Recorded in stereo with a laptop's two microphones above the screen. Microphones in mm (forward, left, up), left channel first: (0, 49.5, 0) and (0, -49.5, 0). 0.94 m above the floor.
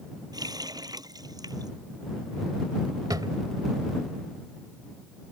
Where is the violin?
I don't hear a violin.